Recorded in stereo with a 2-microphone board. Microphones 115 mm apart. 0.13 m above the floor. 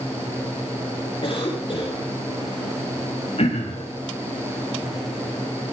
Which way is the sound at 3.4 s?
60° left (ahead or behind).